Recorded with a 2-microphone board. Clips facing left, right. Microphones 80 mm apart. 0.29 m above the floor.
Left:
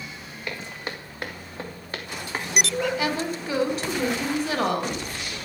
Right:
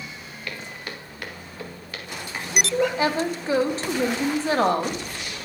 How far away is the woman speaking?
About 1.5 m.